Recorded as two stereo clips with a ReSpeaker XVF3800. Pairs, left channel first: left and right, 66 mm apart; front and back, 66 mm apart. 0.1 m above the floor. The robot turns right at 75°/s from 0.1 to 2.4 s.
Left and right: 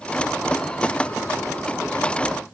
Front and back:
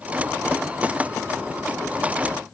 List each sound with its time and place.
Only background noise.